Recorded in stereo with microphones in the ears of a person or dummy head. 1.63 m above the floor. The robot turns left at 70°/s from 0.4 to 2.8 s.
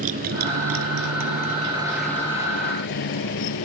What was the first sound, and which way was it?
A motorcycle, 40° right (ahead or behind).